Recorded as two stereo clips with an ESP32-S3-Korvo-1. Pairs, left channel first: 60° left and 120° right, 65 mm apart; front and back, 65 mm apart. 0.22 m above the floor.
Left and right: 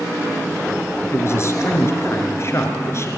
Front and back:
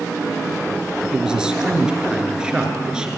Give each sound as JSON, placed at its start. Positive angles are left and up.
{"t": 1.1, "sound": "a man speaking", "azimuth_deg": 105, "distance_m": 3.5}